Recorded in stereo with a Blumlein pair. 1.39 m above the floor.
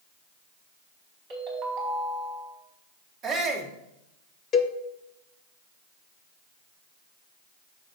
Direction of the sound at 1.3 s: 40° right.